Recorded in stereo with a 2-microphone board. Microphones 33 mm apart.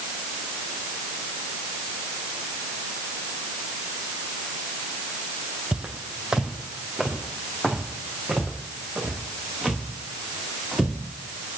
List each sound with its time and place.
5.7 s footsteps: 30° right (ahead or behind), 0.6 m; by 11.6 s centre (ahead or behind), 3.5 m